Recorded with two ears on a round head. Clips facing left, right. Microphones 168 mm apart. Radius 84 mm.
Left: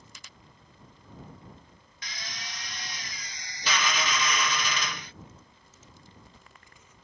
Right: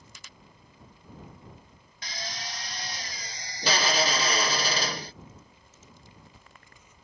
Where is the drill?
30° right (ahead or behind).